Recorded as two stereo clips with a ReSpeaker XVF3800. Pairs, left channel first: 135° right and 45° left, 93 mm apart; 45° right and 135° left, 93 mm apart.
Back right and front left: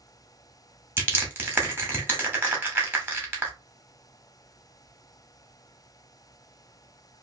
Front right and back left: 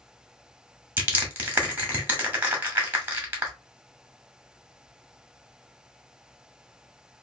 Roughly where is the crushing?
Left.